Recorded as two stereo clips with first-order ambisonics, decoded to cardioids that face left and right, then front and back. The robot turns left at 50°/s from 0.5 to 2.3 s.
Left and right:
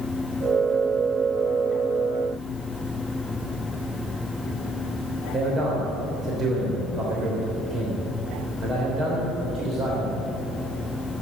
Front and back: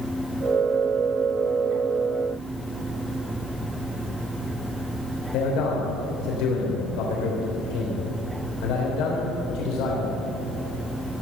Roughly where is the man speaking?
Ahead right.